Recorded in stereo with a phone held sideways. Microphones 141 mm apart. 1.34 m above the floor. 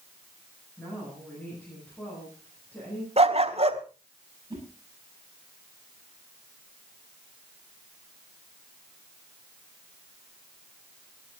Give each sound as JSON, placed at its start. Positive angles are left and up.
{"t": 0.8, "sound": "a woman speaking", "side_deg": 10, "distance_m": 9.5}
{"t": 3.2, "sound": "a dog barking", "side_deg": -45, "distance_m": 1.3}
{"t": 4.5, "sound": "a whoosh", "side_deg": -35, "distance_m": 8.5}